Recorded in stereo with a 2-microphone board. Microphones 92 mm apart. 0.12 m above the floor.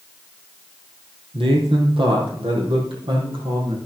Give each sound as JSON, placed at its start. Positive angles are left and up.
{"t": 1.3, "sound": "a man speaking", "side_deg": -70, "distance_m": 3.5}